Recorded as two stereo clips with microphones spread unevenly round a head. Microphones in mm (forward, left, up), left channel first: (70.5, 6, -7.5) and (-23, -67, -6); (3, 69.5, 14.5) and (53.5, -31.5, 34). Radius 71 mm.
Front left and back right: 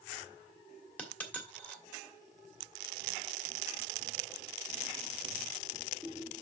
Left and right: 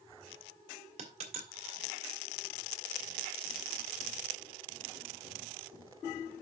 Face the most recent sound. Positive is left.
turn(degrees=-40)